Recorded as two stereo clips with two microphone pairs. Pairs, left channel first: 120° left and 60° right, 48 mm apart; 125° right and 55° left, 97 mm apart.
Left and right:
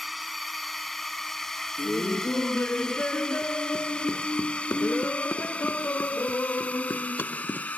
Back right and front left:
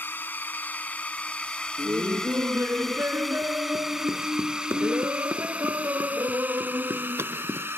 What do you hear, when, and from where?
0.0 s a drone: 145° right; by 7.8 s 100° left
1.8 s laughter: 110° left